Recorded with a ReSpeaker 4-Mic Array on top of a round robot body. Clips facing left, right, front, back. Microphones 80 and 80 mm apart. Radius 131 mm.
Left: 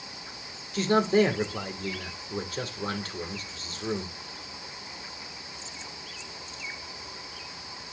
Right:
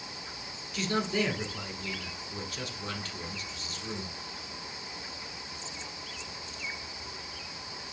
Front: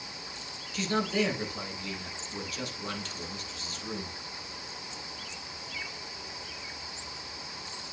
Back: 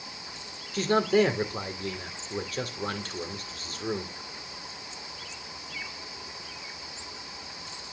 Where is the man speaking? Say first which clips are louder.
Left 8 dB, back 6 dB; 135° left, 2 m.